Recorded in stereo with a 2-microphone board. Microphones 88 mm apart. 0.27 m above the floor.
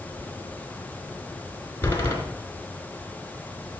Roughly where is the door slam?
Left.